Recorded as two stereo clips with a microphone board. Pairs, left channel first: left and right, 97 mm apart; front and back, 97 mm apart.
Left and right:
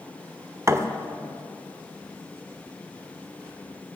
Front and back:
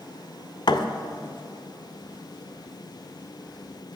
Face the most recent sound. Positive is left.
turn(degrees=-35)